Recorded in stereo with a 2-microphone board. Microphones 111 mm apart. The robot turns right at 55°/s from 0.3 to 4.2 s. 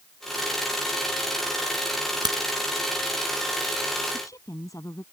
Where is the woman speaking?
25° left (ahead or behind); by 5.0 s 30° left (ahead or behind).